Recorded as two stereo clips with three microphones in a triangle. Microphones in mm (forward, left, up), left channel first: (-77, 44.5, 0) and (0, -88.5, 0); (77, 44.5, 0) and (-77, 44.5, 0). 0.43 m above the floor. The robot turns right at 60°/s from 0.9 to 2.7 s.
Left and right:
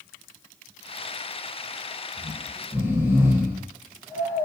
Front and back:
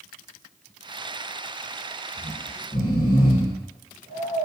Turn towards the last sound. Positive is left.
turn(degrees=15)